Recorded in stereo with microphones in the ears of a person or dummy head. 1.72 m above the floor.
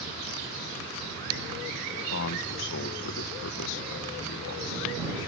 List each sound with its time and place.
2.1 s a man speaking: 65° left (ahead or behind)